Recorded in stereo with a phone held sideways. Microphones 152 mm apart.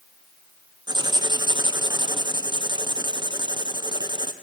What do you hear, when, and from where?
0.9 s writing: 30° right (ahead or behind), 0.6 m